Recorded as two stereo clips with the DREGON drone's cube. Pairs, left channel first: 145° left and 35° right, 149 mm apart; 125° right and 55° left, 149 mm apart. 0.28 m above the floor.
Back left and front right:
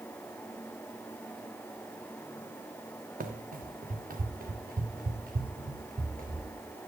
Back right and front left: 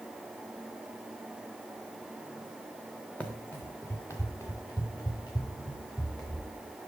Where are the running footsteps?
45° right, 1.0 m; by 6.4 s 60° right, 3 m.